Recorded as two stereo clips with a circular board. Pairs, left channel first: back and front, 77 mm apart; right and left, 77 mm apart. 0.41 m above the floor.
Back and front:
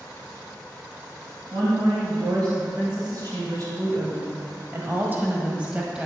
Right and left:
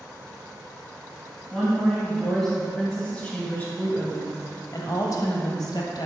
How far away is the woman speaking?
About 2.5 m.